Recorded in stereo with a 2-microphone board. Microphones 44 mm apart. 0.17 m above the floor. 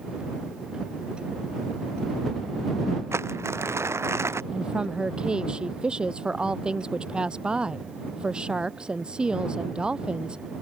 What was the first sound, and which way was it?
Crumpling, 80° right.